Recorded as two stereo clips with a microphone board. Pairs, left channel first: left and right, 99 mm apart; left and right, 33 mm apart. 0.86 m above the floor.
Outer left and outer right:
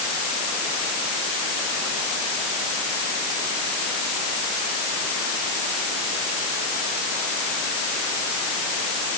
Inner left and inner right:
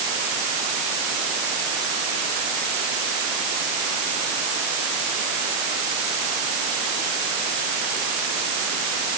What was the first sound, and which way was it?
Only background noise.